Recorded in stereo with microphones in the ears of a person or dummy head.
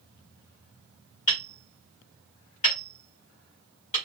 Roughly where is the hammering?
Left.